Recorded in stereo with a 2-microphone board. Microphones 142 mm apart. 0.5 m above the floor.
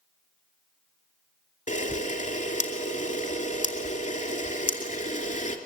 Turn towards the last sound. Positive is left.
turn(degrees=65)  # may be behind; listen again after turning